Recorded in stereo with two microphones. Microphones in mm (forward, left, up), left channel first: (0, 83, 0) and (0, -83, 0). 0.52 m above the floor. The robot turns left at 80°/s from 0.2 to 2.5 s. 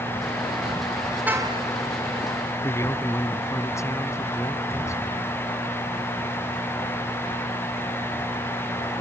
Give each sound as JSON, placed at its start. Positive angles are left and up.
{"t": 1.3, "sound": "a car horn", "azimuth_deg": -10}
{"t": 2.6, "sound": "a man speaking", "side_deg": 15}